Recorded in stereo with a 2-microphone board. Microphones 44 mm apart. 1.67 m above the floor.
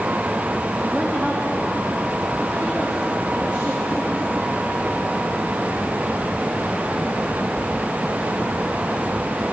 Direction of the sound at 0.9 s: 30° right (ahead or behind).